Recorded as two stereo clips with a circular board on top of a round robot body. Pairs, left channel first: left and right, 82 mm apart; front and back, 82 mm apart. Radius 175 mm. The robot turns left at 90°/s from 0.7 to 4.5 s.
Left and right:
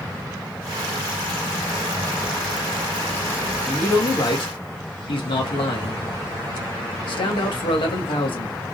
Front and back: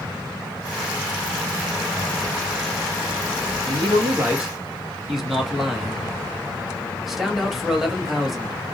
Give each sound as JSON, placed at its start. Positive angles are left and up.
{"t": 3.7, "sound": "a man speaking", "azimuth_deg": 170, "distance_m": 1.6}